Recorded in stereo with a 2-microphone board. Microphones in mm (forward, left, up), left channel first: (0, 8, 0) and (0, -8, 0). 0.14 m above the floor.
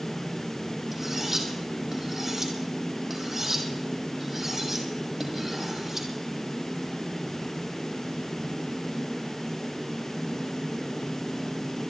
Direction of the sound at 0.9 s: 20° right (ahead or behind).